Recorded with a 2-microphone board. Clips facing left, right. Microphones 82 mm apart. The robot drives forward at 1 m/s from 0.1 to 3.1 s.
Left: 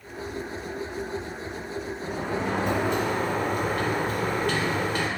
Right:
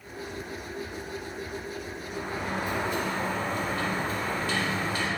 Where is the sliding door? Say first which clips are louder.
Left 5 dB; 85° left, 2.5 m; by 5.1 s 65° left (ahead or behind), 2.5 m.